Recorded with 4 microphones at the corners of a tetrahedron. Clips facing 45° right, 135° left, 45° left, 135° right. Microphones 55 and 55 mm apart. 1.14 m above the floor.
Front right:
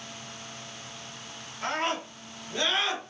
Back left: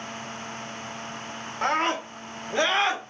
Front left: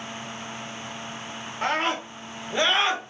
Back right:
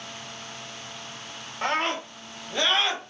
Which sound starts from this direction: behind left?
A scream, at 1.6 s.